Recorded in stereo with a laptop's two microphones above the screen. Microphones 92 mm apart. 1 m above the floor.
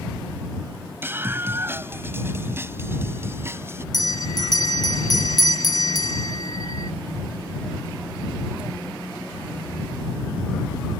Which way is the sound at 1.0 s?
25° right (ahead or behind).